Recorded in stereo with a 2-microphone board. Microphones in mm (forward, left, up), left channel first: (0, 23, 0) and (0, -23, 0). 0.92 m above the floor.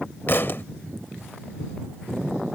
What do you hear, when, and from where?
0.3 s a thud: 50° left (ahead or behind)